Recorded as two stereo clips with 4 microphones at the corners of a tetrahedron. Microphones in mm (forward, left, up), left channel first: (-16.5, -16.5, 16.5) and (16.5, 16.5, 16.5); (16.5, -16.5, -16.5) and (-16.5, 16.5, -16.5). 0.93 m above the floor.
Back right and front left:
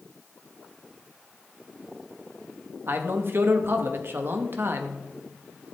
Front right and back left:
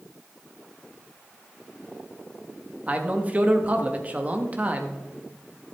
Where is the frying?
No frying in this recording.